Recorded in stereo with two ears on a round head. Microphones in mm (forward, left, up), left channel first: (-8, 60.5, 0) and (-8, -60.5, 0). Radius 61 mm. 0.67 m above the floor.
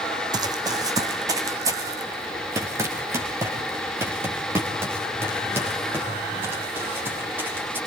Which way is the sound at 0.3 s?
30° right (ahead or behind).